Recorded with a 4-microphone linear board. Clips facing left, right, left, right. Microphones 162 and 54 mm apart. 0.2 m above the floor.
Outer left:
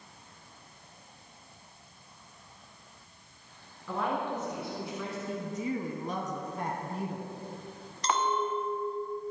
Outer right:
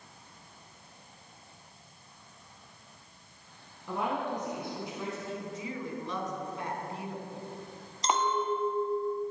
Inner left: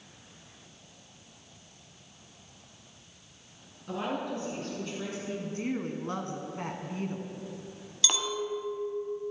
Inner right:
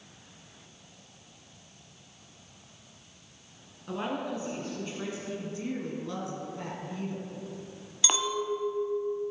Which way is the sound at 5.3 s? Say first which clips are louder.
Outer left 5 dB, inner left 2 dB; 45° left (ahead or behind).